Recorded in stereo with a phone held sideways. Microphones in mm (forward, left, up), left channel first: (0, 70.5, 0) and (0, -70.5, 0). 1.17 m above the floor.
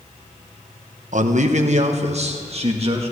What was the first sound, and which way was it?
A man speaking, 60° right (ahead or behind).